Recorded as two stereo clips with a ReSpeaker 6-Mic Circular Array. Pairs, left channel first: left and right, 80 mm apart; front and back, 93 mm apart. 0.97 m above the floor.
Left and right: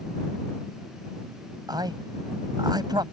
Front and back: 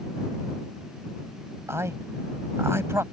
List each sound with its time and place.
1.7 s a man speaking: 120° right